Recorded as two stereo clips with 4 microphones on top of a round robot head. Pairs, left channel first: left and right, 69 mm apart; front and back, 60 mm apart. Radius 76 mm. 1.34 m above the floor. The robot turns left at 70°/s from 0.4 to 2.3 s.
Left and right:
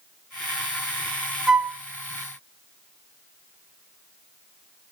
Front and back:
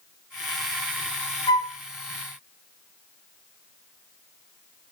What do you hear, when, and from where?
1.5 s a flute: 5° right, 0.7 m; by 1.8 s 30° right, 0.7 m